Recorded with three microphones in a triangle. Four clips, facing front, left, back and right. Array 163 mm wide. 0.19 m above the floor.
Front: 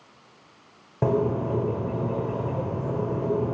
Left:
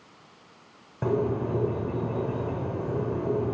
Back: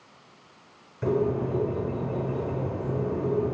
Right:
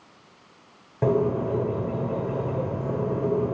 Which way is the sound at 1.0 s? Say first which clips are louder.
Right 4 dB, front 2 dB; 15° right.